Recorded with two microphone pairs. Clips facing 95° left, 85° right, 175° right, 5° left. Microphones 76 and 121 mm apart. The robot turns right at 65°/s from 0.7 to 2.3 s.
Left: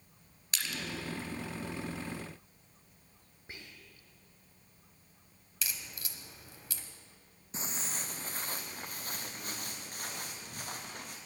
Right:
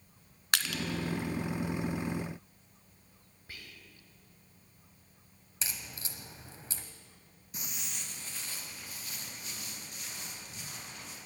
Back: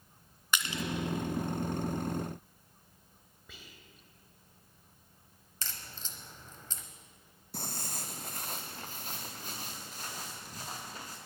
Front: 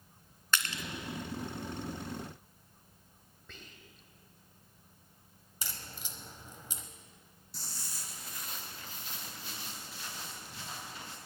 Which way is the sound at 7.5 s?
160° left.